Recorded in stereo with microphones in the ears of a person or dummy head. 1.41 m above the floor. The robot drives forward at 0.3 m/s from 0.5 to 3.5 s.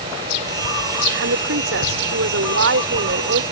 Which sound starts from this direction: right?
A woman speaking, at 1.2 s.